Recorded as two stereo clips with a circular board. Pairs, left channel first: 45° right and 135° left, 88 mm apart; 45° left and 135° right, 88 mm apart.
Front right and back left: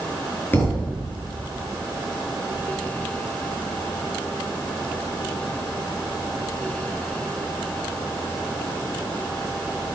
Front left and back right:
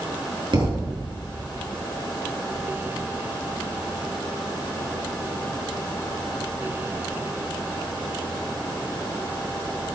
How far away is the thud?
About 5 m.